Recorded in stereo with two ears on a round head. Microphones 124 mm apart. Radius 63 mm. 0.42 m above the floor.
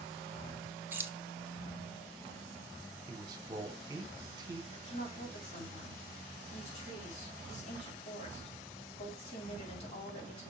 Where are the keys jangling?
15° right (ahead or behind), 0.7 m.